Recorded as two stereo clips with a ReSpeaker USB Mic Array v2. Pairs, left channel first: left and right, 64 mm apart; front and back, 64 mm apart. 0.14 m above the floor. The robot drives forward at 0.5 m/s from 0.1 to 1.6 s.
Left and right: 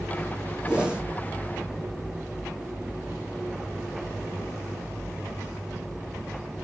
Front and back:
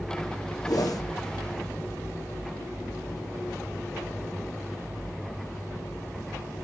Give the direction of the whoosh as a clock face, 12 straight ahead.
1 o'clock.